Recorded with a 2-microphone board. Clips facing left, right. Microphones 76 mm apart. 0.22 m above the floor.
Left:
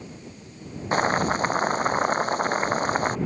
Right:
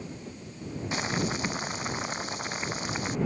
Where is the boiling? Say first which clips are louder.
Left 9 dB; 50° left (ahead or behind).